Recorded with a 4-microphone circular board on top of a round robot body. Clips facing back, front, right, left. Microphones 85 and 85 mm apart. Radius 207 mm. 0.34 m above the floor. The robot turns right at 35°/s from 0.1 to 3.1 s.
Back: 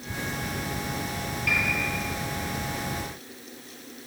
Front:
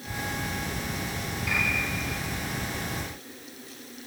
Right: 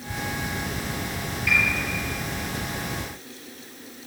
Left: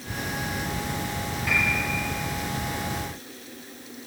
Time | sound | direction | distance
1.5 | a piano | 145° left | 4 m